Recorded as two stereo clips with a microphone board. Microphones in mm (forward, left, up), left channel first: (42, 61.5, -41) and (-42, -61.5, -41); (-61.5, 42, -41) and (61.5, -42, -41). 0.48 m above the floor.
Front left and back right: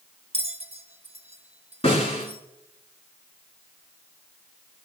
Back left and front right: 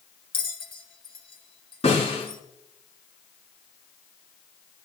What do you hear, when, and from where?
0.3 s a bell: 165° right, 1.1 m
1.8 s a snare drum: 100° left, 5 m